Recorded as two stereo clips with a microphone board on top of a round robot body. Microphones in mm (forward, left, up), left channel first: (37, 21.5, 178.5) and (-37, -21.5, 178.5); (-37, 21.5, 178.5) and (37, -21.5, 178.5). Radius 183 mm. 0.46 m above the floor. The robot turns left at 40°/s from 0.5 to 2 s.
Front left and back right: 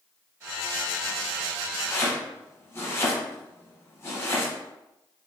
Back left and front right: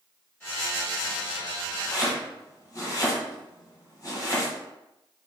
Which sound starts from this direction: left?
Chopping, at 1.9 s.